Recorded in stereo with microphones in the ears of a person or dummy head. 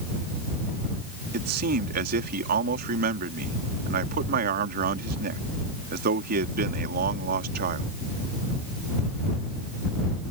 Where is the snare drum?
No snare drum in this recording.